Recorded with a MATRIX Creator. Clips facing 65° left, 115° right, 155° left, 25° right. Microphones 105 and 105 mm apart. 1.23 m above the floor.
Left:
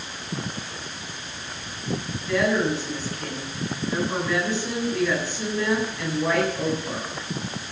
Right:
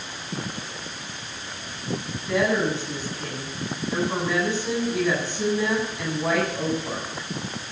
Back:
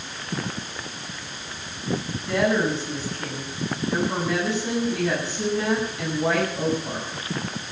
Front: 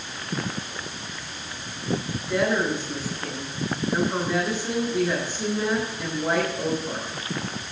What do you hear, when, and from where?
2.3 s a woman speaking: 175° left, 9 m